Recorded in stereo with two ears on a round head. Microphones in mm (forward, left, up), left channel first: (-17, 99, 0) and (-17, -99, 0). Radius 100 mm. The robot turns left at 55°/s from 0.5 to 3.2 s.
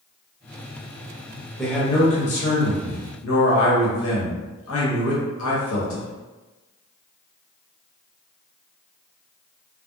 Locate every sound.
1.6 s a man speaking: straight behind, 0.9 m; by 6.1 s 90° left, 0.9 m